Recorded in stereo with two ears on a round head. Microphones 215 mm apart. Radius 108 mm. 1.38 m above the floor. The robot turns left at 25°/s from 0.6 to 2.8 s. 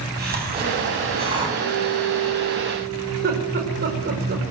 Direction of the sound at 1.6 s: 45° right.